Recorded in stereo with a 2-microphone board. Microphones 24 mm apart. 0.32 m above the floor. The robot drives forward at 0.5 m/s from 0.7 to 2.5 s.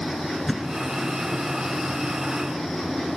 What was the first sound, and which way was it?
A thud, 5° left (ahead or behind).